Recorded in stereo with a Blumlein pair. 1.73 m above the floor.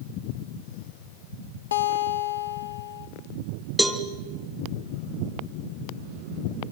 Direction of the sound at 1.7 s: 65° left.